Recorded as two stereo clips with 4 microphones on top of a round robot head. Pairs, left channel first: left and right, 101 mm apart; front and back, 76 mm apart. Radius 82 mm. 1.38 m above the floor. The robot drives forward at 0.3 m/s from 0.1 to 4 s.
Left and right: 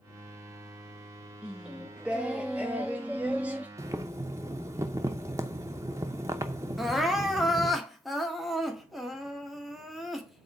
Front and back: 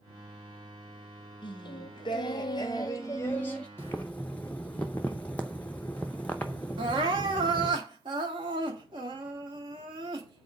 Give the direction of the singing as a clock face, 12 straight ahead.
12 o'clock.